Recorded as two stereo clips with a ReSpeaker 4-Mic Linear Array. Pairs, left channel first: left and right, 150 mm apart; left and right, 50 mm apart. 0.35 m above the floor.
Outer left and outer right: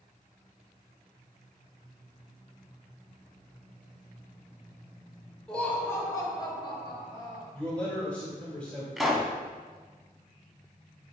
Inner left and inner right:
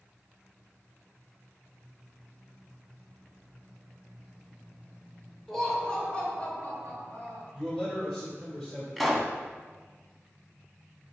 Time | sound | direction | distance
5.5 | laughter | 5° left (ahead or behind) | 0.8 m
7.5 | a man speaking | 10° left (ahead or behind) | 1.4 m
9.0 | a pop | centre (ahead or behind) | 0.5 m